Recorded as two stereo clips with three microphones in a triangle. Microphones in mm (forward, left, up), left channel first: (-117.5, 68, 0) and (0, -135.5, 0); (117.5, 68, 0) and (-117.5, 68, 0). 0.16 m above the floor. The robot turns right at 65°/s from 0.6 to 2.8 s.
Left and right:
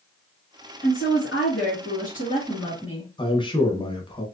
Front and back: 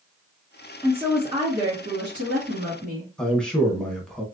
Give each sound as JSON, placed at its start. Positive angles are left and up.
{"t": 0.8, "sound": "a woman speaking", "azimuth_deg": 85, "distance_m": 2.0}
{"t": 3.2, "sound": "a man speaking", "azimuth_deg": 85, "distance_m": 1.1}